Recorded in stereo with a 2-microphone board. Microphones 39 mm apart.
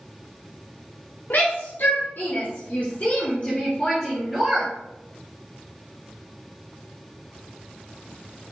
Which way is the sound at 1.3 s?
65° left (ahead or behind).